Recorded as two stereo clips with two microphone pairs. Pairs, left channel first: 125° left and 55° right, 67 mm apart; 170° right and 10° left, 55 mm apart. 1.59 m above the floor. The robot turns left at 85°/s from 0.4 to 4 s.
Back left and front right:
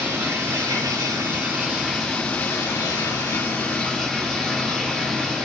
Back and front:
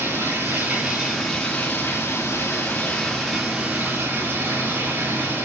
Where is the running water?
10° right, 2.5 m; by 5.5 s 45° left, 2.5 m.